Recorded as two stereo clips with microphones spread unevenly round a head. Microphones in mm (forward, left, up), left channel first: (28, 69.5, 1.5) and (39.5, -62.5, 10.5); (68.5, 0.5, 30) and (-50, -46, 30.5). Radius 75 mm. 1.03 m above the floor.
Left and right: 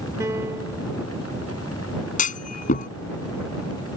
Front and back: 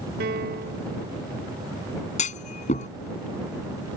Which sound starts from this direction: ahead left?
A clunk, at 2.2 s.